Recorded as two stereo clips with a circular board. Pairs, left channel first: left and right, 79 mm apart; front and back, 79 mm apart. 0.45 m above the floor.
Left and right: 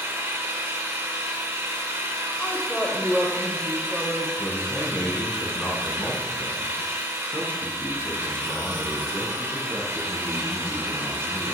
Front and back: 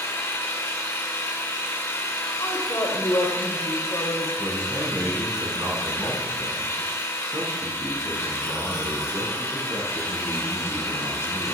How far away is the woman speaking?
About 2 m.